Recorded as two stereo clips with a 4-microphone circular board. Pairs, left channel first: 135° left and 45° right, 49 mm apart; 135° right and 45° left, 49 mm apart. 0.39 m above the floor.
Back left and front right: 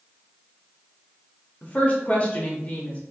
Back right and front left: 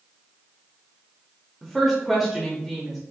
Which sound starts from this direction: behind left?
A woman speaking, at 1.6 s.